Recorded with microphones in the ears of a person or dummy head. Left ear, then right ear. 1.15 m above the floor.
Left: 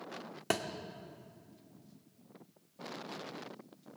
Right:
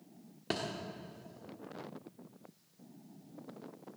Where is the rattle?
No rattle in this recording.